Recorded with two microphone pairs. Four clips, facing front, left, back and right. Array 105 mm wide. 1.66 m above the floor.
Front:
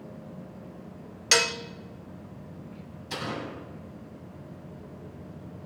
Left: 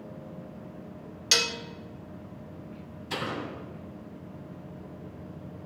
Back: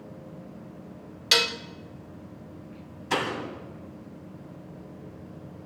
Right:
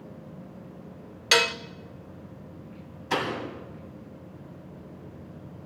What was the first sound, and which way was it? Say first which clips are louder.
Dishes clattering: right 7 dB, front 1 dB; 80° right.